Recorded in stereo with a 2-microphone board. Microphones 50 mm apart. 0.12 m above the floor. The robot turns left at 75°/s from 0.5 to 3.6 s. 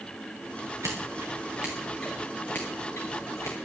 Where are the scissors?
85° right, 3.5 m; by 3.5 s 60° left (ahead or behind), 3.5 m.